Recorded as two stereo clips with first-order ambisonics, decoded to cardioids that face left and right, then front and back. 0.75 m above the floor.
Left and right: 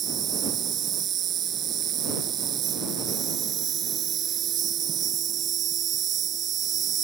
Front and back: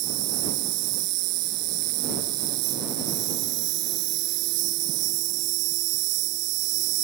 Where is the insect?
150° right.